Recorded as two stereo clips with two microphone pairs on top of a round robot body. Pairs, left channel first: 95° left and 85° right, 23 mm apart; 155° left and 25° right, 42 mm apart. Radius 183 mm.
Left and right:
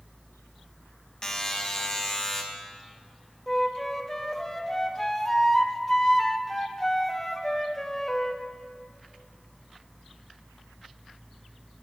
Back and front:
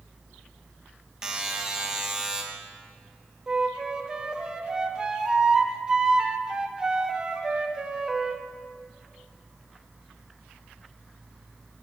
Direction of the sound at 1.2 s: 45° left.